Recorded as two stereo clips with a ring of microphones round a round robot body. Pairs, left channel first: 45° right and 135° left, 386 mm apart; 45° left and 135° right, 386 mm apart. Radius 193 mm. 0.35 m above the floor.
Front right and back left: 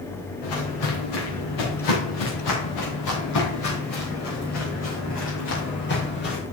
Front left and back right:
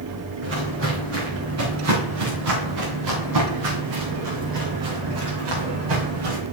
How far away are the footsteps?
About 4.5 m.